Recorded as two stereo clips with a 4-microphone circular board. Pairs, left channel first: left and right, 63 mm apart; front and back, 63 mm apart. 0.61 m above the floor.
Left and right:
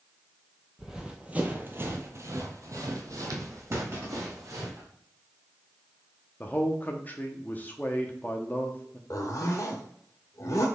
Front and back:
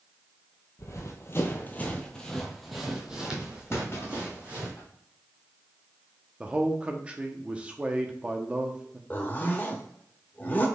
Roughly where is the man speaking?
Behind left.